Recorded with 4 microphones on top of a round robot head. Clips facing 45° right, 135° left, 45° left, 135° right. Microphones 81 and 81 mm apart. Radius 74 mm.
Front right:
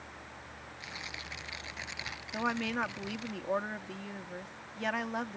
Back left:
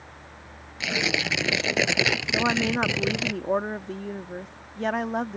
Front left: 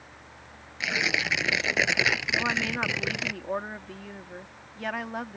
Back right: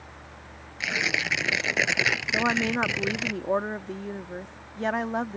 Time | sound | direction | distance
0.8 | tearing paper | 135° left | ?
2.3 | a woman speaking | 175° left | ?